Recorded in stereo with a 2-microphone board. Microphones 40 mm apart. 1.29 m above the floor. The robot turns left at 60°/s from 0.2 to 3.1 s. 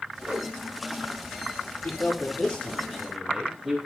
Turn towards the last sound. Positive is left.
turn(degrees=-15)